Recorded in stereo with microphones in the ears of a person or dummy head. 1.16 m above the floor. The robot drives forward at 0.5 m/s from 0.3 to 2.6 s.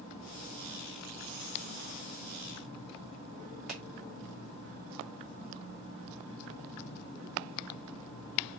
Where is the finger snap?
5° right (ahead or behind), 1.4 m.